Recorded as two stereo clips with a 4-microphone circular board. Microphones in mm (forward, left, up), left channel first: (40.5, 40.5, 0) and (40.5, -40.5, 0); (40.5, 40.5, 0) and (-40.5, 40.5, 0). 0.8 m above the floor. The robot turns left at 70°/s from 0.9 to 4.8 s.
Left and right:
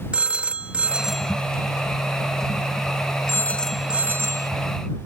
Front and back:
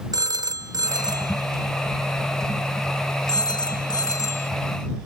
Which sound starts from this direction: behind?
A phone ringing, at 0.1 s.